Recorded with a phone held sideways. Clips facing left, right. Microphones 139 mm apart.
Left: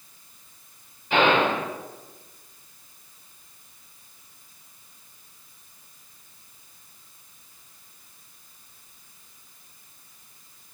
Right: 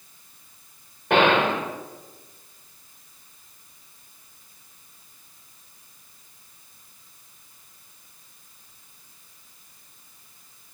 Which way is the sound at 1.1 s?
85° right.